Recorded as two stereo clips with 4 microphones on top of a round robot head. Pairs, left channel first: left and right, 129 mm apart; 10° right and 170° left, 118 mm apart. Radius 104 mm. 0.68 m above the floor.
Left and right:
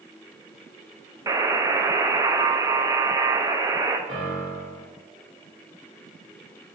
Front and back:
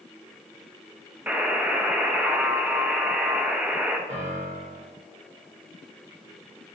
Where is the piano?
140° right, 1.3 m.